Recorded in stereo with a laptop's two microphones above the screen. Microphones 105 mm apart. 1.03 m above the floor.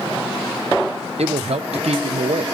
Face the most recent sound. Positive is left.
turn(degrees=-80)